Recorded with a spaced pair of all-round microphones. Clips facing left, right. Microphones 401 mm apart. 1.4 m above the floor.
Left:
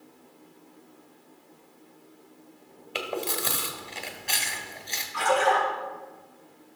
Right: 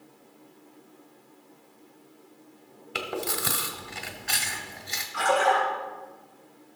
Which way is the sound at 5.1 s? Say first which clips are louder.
Even; 15° left (ahead or behind).